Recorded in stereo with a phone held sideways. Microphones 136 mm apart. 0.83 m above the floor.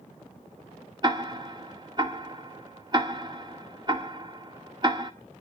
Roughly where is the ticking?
Right.